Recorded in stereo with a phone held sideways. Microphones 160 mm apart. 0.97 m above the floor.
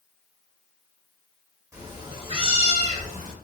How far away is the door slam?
I don't hear a door slam.